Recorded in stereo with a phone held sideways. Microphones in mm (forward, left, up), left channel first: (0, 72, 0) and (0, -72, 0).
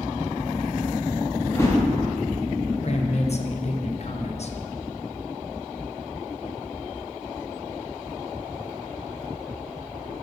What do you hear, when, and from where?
1.4 s a whoosh: 20° left (ahead or behind), 2.5 m
2.8 s a man speaking: 50° left (ahead or behind), 0.8 m